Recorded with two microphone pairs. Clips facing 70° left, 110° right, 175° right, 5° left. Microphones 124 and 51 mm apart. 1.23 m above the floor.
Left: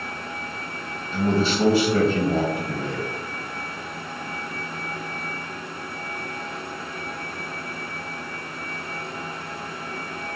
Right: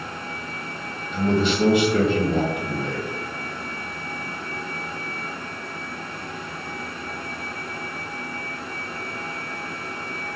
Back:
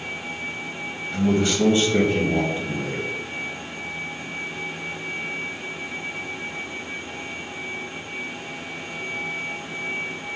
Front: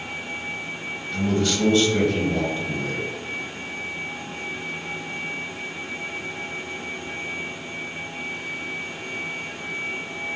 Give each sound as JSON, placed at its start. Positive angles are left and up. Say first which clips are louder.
{"t": 1.1, "sound": "a man speaking", "louder": "right 1 dB, back 2 dB", "azimuth_deg": 125, "distance_m": 1.3}